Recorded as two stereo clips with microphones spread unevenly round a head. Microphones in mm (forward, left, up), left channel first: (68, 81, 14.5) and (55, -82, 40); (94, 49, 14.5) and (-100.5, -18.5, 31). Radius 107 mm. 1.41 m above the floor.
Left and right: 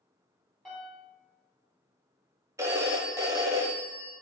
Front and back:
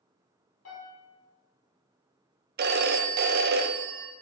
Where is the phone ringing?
155° right, 0.6 m.